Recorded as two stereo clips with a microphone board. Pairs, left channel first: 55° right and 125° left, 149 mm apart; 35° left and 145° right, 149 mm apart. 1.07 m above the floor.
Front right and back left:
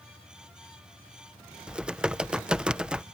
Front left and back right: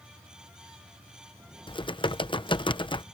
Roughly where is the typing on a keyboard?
Ahead left.